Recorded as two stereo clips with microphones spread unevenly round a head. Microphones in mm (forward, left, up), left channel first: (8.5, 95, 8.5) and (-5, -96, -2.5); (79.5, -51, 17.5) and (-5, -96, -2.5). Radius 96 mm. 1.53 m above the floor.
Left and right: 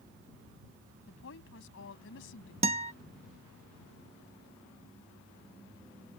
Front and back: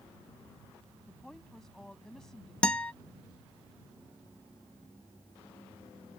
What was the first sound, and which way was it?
A woman speaking, 115° left.